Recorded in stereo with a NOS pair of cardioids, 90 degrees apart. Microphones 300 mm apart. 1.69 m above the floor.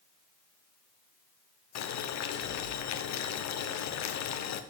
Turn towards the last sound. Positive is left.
turn(degrees=65)